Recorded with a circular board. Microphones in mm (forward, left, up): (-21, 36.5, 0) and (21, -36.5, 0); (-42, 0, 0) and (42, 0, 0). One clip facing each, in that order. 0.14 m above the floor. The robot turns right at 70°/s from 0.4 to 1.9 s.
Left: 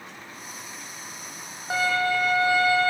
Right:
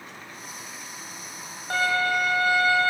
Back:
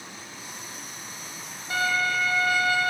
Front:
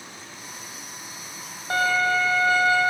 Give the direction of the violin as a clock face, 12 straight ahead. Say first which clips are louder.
Even, front 4 dB; 11 o'clock.